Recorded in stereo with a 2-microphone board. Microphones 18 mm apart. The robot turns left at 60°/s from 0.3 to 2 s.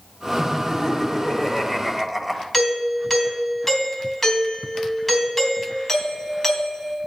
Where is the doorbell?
10° left (ahead or behind), 3 m.